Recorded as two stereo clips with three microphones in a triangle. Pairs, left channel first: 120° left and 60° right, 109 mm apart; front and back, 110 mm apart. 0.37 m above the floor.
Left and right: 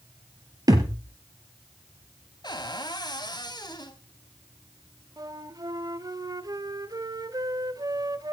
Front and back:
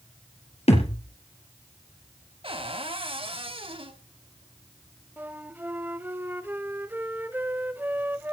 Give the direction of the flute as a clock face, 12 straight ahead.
4 o'clock.